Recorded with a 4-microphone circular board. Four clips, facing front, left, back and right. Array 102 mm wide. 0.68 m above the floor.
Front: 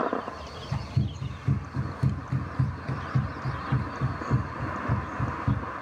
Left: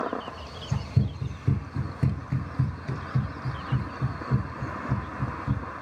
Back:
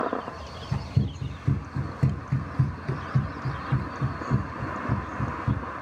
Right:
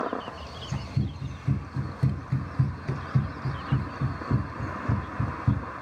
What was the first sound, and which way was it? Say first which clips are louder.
Running footsteps: left 3 dB, back 3 dB; 115° left.